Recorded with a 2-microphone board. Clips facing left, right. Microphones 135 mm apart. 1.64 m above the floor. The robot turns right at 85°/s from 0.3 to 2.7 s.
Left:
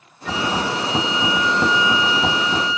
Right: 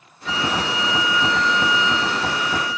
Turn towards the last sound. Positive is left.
turn(degrees=-80)